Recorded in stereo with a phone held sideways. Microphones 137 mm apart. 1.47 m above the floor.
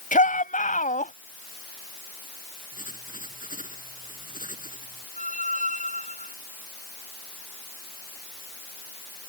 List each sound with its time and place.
0.1 s a shout: 75° left (ahead or behind); by 1.1 s 70° left (ahead or behind)
2.7 s writing: 80° left
5.2 s a squeak: 65° left (ahead or behind)